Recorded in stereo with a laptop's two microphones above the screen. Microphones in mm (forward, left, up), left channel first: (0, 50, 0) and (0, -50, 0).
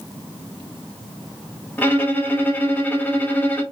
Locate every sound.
1.8 s a violin: 15° left (ahead or behind), 0.7 m